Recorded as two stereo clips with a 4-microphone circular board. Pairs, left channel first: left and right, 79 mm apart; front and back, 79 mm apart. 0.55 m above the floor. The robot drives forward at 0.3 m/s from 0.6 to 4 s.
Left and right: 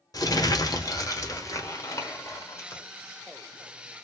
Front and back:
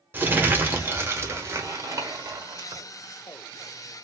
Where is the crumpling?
120° left, 1.1 m; by 2.8 s 145° left, 1.5 m.